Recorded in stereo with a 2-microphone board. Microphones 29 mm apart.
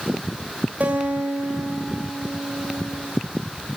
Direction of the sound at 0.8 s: 70° right (ahead or behind).